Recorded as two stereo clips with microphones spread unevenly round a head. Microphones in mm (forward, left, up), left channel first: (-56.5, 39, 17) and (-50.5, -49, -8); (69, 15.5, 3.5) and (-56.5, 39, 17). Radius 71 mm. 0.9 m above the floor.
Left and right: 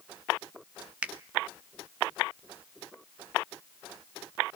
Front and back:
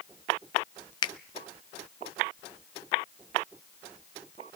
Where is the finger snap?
35° right, 0.6 m.